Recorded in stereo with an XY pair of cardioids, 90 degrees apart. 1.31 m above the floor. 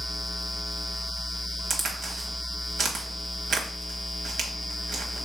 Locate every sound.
1.7 s a crack: 65° right, 1.2 m